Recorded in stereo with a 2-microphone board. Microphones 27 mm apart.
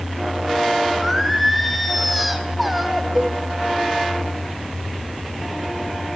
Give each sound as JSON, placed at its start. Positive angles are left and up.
{"t": 1.0, "sound": "singing", "side_deg": 0, "distance_m": 3.0}
{"t": 3.1, "sound": "a cowbell", "side_deg": -5, "distance_m": 4.0}